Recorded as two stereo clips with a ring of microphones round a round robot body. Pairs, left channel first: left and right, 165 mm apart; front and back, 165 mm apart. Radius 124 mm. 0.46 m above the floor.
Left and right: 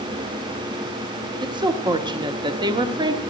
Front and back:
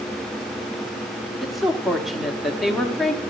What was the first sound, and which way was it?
A woman speaking, 90° right.